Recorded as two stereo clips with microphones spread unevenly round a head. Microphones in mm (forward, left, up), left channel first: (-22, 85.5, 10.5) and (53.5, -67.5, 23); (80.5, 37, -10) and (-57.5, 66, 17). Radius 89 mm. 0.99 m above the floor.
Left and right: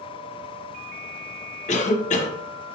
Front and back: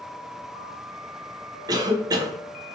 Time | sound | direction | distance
1.7 | a cough | 105° left | 0.6 m